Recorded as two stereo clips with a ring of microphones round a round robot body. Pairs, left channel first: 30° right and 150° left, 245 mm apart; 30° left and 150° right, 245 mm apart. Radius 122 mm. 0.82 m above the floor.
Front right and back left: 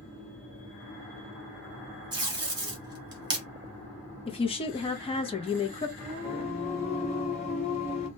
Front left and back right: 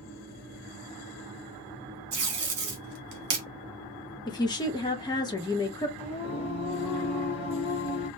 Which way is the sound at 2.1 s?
145° right.